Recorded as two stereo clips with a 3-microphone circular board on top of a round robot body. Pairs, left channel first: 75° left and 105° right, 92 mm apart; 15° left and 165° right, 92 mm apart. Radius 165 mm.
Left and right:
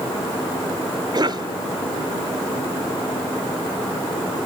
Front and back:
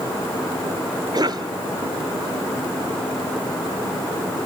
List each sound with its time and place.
1.1 s a cough: 135° right, 1.6 m